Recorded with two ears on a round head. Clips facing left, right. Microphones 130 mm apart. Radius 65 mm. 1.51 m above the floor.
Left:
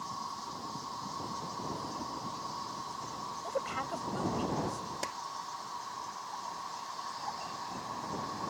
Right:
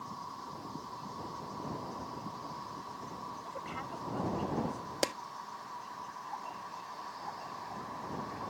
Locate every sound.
0.0 s an insect: 55° left (ahead or behind)
3.4 s a woman speaking: 55° left (ahead or behind)
5.0 s a clap: 75° right (ahead or behind)